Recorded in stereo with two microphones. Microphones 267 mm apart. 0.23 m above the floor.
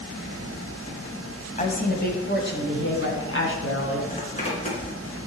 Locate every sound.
1.6 s a woman speaking: 30° left (ahead or behind), 1.4 m; by 4.0 s 50° left (ahead or behind), 3 m
4.1 s a zipper: 25° left (ahead or behind), 3 m